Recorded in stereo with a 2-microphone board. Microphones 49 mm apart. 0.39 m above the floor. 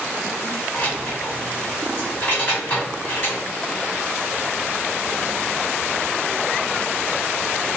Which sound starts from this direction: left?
Keys jangling, at 0.7 s.